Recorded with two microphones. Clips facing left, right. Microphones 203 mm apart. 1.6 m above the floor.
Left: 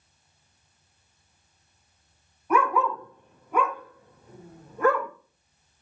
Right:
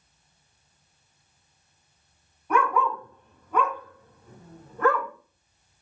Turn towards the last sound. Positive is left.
turn(degrees=10)  # may be behind; listen again after turning